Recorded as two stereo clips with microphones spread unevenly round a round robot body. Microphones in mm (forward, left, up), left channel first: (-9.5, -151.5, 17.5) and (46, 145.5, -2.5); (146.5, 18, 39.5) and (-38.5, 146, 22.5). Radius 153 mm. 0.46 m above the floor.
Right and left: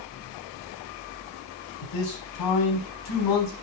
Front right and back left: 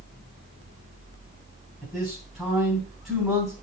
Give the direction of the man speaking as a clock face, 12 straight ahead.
4 o'clock.